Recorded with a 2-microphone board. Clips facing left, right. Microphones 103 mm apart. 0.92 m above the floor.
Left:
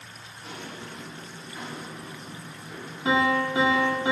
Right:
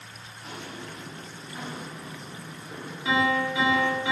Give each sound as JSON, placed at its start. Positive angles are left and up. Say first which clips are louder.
{"t": 0.4, "sound": "footsteps", "louder": "even", "side_deg": -10, "distance_m": 3.0}
{"t": 3.0, "sound": "a piano", "louder": "left 2 dB", "side_deg": 40, "distance_m": 1.7}